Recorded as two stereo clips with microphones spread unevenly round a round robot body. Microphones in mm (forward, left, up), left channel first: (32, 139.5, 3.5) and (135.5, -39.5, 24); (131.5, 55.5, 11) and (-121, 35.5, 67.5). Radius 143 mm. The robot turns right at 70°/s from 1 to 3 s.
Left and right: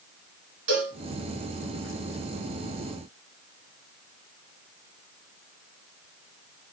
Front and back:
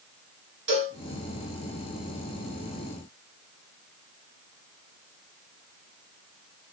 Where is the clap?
No clap in this recording.